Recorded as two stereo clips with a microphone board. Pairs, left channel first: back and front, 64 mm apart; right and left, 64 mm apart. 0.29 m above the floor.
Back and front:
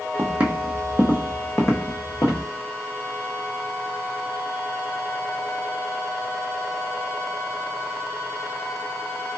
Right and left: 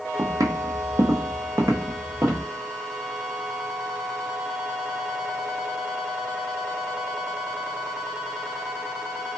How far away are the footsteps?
About 0.6 m.